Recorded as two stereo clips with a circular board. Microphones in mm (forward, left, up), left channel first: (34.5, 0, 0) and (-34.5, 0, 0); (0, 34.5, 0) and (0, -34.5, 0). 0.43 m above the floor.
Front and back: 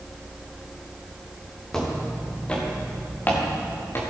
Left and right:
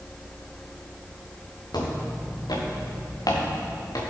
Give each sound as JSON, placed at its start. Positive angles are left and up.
{"t": 1.7, "sound": "footsteps", "azimuth_deg": 85, "distance_m": 3.5}